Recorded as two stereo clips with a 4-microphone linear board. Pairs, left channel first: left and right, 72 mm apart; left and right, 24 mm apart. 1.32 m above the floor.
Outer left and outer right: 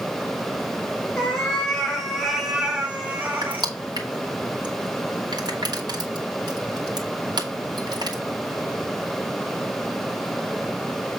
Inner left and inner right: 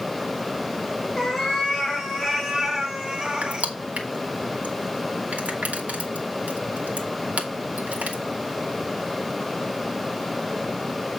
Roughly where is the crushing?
Right.